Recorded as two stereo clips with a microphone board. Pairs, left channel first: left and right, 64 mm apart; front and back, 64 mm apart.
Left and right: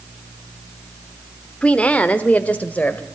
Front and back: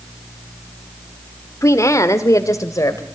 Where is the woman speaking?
20° left, 1.2 m; by 3.1 s 25° left, 2 m.